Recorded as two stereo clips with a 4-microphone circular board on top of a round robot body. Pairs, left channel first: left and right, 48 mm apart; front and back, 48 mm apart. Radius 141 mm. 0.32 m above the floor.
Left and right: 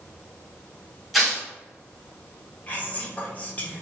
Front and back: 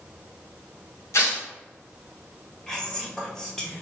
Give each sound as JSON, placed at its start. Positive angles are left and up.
{"t": 1.1, "sound": "tearing paper", "azimuth_deg": 0, "distance_m": 1.6}
{"t": 2.7, "sound": "whispering", "azimuth_deg": 70, "distance_m": 1.1}